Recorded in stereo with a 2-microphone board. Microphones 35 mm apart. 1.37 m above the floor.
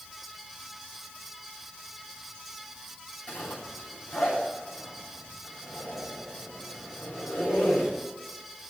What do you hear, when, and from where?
3.3 s a zipper: 55° left (ahead or behind), 8.5 m